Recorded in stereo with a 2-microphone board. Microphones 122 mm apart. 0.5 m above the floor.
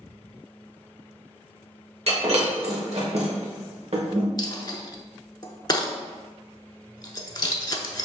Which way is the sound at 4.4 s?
35° left (ahead or behind).